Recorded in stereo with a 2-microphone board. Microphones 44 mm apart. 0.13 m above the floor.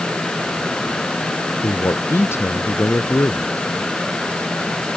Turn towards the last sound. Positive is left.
turn(degrees=70)  # may be behind; listen again after turning